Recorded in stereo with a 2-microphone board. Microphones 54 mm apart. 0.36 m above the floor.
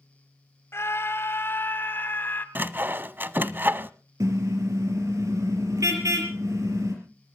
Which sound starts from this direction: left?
A scream, at 0.7 s.